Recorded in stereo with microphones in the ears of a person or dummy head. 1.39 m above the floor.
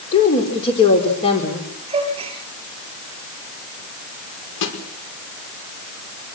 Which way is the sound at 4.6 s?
65° left (ahead or behind).